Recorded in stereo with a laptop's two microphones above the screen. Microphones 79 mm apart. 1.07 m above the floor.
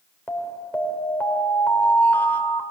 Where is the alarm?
20° left (ahead or behind), 2.5 m.